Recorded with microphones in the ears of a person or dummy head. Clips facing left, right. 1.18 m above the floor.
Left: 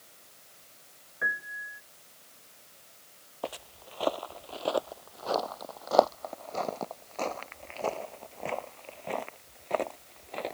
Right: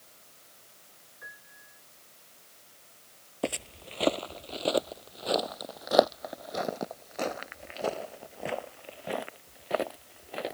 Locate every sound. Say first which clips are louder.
1.2 s a piano: left 16 dB; 80° left
3.4 s footsteps: right 5 dB; 35° right (ahead or behind); by 10.6 s 15° right (ahead or behind)